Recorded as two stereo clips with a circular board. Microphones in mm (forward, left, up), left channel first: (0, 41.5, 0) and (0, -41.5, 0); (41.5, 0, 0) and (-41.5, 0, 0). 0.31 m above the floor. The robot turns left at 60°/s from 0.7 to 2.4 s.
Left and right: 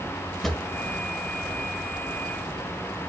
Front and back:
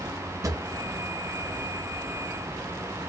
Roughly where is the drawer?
Behind.